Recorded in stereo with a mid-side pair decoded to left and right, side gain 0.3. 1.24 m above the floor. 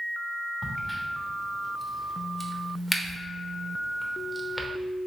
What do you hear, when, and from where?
0.6 s a crack: 10° left, 0.8 m